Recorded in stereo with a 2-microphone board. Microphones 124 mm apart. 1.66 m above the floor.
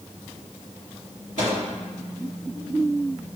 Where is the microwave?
75° right (ahead or behind), 2.5 m.